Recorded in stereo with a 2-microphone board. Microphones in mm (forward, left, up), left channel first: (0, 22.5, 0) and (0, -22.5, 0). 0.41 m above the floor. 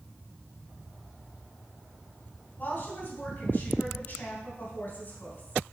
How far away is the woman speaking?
About 3 m.